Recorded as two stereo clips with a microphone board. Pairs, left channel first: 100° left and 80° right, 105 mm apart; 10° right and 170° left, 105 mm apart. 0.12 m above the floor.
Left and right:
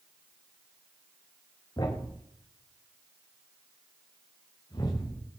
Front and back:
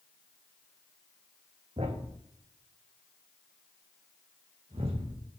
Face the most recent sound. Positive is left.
turn(degrees=150)